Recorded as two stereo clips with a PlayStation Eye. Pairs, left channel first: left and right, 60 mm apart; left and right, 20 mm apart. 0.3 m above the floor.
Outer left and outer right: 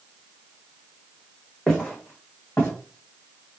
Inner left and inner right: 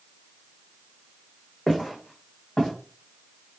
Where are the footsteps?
10° left (ahead or behind), 1.7 m; by 2.7 s 45° left (ahead or behind), 1.5 m.